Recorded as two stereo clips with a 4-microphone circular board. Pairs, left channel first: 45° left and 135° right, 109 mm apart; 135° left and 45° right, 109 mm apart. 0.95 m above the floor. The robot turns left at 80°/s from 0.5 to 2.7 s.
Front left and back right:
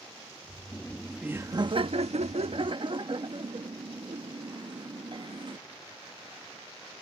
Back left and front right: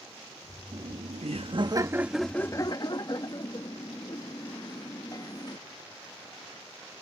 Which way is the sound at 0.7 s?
15° right.